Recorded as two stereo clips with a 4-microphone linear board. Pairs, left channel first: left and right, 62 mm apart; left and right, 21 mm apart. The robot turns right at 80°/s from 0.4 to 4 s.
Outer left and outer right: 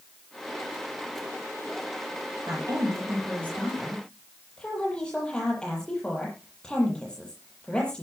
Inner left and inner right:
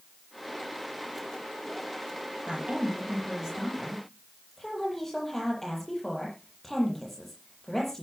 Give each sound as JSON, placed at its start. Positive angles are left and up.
{"t": 2.5, "sound": "a woman speaking", "azimuth_deg": -110, "distance_m": 8.5}